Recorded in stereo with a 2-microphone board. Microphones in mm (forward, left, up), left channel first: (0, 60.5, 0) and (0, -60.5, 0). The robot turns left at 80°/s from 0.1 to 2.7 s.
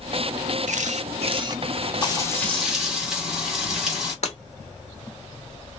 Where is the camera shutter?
80° right, 0.5 m; by 1.6 s 155° right, 0.5 m.